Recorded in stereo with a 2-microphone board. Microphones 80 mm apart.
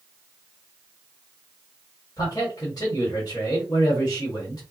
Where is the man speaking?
55° left (ahead or behind), 1.7 m.